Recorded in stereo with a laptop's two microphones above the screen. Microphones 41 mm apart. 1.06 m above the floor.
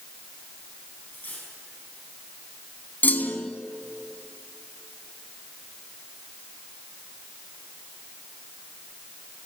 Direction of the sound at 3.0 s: 45° left (ahead or behind).